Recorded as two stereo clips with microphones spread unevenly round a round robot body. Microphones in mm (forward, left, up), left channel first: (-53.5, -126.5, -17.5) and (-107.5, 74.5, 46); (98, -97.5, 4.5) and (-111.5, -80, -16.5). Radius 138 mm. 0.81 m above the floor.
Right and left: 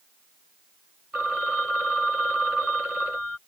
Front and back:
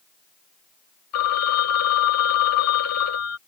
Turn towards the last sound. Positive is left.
turn(degrees=20)